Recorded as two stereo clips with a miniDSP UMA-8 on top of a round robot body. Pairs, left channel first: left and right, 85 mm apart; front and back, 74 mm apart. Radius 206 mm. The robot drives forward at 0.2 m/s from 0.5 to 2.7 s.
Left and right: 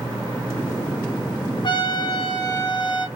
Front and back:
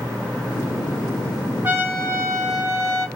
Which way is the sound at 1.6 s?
120° left.